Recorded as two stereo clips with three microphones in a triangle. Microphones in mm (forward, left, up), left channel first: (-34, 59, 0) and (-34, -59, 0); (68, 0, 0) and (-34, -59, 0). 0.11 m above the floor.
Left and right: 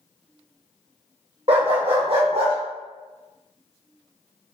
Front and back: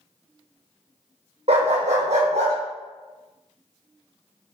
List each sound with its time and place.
1.5 s a dog barking: 120° right, 1.4 m; by 2.5 s 130° right, 2 m